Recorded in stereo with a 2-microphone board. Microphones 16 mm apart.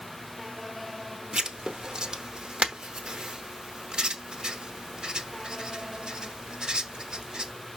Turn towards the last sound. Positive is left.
turn(degrees=-60)  # may be behind; listen again after turning